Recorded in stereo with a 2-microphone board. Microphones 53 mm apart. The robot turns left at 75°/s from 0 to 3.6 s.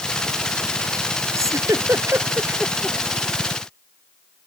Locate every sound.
1.4 s a giggle: 65° right (ahead or behind); by 3.0 s 10° left (ahead or behind)